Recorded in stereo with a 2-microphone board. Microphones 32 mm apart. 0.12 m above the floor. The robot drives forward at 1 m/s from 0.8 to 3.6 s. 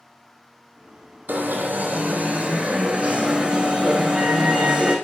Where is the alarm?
65° right (ahead or behind), 2.5 m; by 5.0 s 35° right (ahead or behind), 4 m.